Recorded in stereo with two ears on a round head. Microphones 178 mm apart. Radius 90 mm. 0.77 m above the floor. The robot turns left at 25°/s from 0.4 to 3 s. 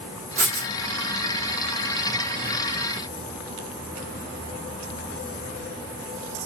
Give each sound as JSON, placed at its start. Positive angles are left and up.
{"t": 0.4, "sound": "writing", "side_deg": -40, "distance_m": 0.9}